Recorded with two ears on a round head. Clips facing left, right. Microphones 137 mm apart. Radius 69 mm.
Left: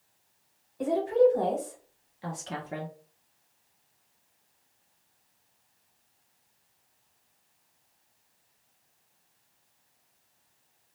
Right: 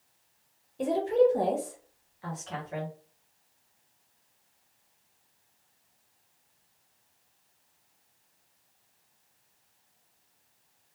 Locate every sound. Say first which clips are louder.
0.8 s a woman speaking: left 1 dB; 30° right (ahead or behind), 0.9 m; by 2.9 s 60° left (ahead or behind), 0.6 m